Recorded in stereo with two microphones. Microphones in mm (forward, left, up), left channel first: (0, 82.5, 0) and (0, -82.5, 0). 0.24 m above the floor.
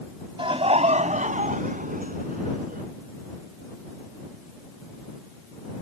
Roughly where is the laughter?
Right.